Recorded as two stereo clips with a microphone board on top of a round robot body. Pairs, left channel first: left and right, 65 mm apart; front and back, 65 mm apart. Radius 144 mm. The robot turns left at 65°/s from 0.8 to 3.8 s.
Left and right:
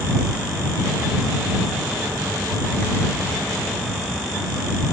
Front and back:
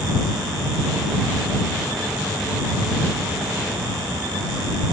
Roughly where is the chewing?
No chewing in this recording.